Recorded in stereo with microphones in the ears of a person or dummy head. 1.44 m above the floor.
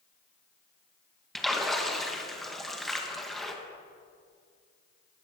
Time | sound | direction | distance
1.4 | a splash | centre (ahead or behind) | 1.4 m